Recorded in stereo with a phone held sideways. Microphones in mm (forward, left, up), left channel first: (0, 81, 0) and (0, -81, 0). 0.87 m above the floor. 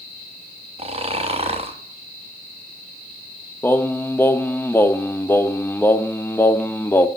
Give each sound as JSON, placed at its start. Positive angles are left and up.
{"t": 0.8, "sound": "snoring", "side_deg": -40, "distance_m": 1.0}
{"t": 3.6, "sound": "singing", "side_deg": 15, "distance_m": 0.5}